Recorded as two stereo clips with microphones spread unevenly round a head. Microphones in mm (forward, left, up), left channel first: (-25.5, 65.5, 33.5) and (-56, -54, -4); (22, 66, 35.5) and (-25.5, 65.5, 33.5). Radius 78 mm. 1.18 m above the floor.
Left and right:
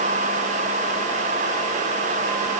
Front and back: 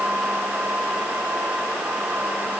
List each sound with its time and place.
Only background noise.